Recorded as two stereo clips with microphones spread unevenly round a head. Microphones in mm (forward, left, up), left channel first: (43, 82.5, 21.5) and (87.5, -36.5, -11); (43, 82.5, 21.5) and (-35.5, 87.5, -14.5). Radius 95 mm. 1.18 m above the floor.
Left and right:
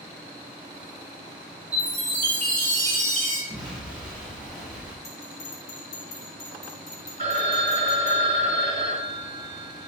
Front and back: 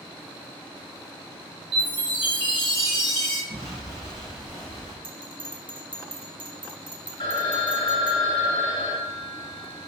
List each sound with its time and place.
1.7 s a chime: 160° right, 3 m
3.5 s an explosion: 140° right, 2.5 m
5.0 s a bell: 150° left, 1.9 m
7.2 s a phone ringing: 60° right, 1.9 m